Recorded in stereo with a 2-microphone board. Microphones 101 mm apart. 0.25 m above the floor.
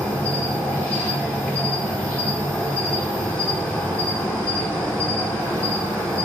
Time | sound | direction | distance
0.0 | an insect | 10° left (ahead or behind) | 0.8 m